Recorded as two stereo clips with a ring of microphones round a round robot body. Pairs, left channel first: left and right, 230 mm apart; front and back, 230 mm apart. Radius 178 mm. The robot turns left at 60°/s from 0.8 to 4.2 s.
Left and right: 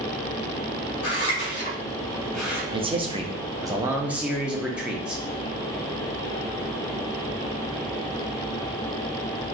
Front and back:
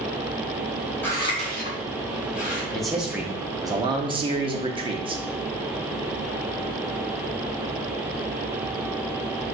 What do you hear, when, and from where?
1.0 s scissors: 85° left, 1.8 m; by 2.6 s 10° right, 1.8 m
2.7 s a man speaking: 80° right, 0.6 m; by 5.2 s 170° right, 0.6 m